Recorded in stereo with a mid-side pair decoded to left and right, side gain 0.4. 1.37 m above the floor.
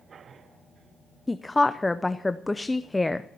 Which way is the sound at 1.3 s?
15° left.